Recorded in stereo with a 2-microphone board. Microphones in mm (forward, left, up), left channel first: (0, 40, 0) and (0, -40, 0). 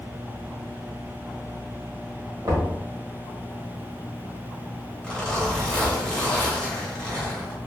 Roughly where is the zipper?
Centre.